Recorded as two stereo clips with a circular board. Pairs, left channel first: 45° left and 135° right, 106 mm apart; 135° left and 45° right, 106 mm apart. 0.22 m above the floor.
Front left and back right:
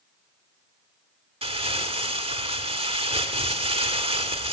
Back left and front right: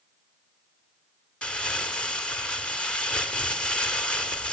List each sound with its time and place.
1.4 s crumpling: 145° right, 1.0 m